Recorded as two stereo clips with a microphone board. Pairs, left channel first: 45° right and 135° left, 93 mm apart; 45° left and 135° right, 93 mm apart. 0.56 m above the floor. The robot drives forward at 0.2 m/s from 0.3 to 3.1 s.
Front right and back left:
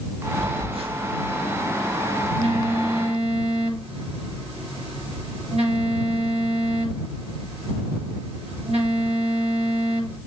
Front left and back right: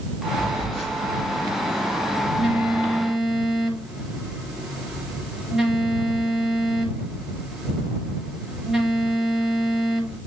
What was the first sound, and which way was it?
A phone buzzing, 130° left.